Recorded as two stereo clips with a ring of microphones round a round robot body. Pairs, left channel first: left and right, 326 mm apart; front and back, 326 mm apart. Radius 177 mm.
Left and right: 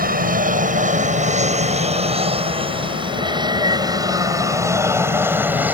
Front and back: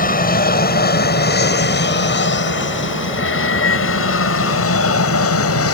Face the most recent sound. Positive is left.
turn(degrees=-5)